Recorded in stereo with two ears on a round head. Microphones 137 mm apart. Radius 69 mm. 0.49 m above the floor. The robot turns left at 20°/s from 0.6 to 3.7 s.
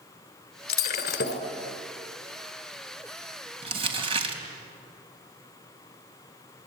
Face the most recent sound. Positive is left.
turn(degrees=-40)  # may be behind; listen again after turning